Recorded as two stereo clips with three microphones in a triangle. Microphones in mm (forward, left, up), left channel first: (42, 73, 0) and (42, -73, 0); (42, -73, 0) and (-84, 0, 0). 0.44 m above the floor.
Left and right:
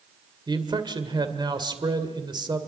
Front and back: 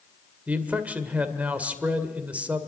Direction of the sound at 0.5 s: 135° right.